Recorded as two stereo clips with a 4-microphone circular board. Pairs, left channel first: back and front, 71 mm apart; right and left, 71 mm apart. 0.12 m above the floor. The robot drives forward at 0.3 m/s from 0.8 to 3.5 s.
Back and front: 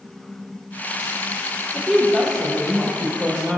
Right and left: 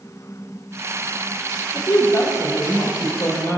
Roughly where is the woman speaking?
Right.